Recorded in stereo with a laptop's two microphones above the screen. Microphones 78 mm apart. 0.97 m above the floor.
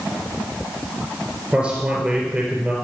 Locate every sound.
1.5 s a man speaking: 10° right (ahead or behind), 4 m